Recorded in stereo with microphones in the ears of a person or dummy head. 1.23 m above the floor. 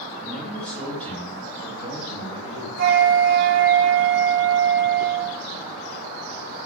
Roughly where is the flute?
Right.